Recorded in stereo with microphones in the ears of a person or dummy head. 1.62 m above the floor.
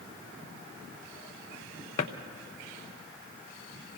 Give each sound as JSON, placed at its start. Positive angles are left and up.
{"t": 2.0, "sound": "a drawer", "side_deg": 35, "distance_m": 0.9}